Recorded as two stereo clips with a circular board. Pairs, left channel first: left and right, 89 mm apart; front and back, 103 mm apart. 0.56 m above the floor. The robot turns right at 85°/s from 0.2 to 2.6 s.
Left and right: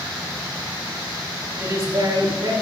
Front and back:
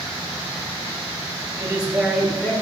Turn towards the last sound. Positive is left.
turn(degrees=-65)